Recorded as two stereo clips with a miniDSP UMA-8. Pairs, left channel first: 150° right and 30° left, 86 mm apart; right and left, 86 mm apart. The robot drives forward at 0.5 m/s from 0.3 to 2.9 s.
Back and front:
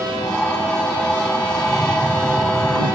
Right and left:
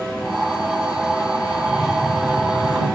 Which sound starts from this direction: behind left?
Tapping, at 1.6 s.